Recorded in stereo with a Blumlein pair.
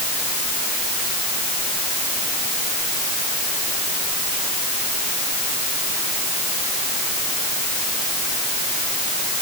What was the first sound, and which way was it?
Only background noise.